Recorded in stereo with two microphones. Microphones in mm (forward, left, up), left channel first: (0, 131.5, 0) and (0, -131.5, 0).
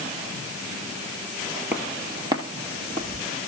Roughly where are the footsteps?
Centre.